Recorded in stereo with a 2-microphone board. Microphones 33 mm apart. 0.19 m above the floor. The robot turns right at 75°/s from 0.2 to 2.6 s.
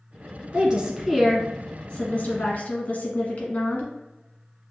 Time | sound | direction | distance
0.5 | a woman speaking | 65° right | 1.6 m